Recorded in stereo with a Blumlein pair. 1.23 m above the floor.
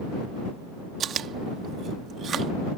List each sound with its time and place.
1.0 s chewing: 25° right